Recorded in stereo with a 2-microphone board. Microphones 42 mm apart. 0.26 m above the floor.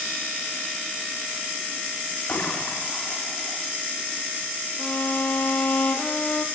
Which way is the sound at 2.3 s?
45° left (ahead or behind).